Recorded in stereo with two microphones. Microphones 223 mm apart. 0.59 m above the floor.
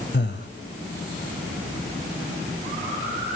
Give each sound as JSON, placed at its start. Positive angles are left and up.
{"t": 0.1, "sound": "breathing", "side_deg": 50, "distance_m": 1.1}